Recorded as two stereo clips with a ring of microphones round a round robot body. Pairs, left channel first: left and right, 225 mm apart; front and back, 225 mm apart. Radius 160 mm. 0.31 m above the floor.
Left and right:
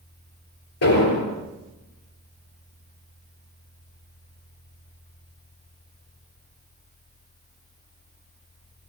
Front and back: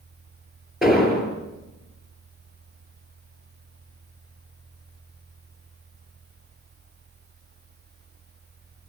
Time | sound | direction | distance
0.8 | an explosion | 90° left | 7 m